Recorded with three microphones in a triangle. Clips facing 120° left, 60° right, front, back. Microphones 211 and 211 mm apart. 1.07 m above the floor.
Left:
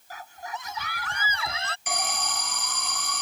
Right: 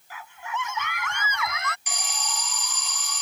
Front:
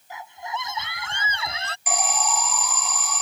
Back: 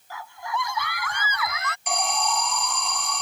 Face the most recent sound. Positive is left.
turn(degrees=85)